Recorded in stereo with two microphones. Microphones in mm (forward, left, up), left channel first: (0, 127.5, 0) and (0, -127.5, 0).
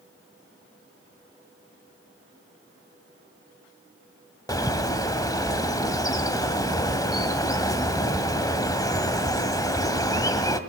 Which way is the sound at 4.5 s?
15° left (ahead or behind).